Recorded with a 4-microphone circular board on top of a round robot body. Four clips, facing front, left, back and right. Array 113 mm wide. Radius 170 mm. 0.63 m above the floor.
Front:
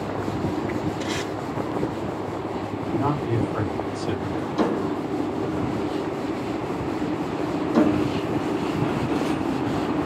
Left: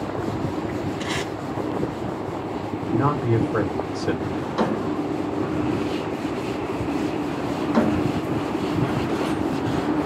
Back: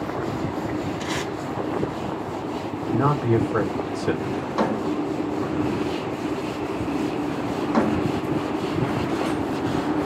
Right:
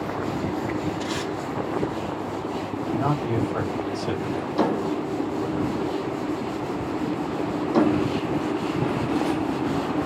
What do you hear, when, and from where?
1.0 s tape being pulled: 130° left, 1.6 m
2.9 s a man speaking: 150° left, 2 m
4.3 s a drawer: 145° left, 1.9 m